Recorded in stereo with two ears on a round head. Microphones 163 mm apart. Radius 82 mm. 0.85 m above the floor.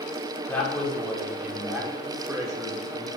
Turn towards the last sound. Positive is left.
turn(degrees=-30)  # may be behind; listen again after turning